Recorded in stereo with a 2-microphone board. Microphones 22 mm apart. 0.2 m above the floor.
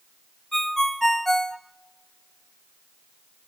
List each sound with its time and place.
0.5 s a ringtone: 10° left (ahead or behind), 0.6 m